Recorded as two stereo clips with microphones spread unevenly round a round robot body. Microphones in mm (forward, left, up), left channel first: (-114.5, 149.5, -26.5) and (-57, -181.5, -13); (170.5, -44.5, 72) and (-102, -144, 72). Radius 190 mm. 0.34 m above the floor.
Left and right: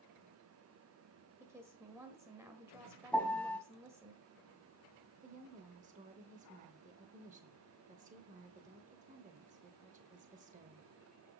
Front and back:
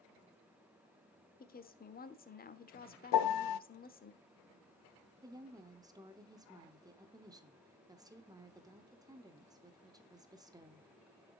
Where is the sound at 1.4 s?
Straight ahead, 1.1 m.